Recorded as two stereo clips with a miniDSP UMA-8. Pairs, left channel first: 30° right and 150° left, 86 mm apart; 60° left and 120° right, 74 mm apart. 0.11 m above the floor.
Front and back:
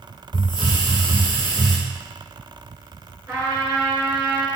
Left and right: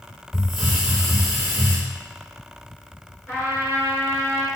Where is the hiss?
35° right, 1.5 m.